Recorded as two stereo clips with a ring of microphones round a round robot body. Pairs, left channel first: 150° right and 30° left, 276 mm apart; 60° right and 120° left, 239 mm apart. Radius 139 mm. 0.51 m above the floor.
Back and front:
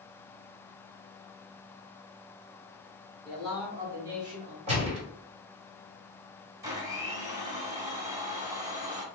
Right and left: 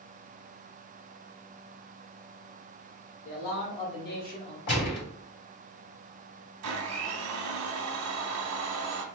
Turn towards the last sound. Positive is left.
turn(degrees=110)